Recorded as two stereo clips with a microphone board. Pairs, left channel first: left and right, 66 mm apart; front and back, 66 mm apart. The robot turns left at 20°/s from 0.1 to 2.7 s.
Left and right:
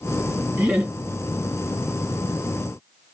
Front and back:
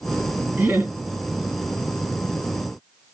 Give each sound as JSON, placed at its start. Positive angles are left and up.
{"t": 0.6, "sound": "laughter", "azimuth_deg": -135, "distance_m": 1.9}